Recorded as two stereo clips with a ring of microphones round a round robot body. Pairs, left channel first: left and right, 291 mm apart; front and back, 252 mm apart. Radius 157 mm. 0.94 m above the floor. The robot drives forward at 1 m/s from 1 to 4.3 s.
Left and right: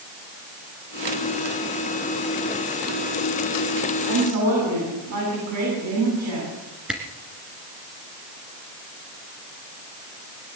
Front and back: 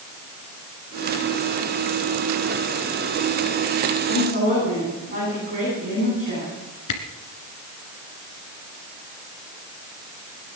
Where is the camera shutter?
5° right, 1.9 m.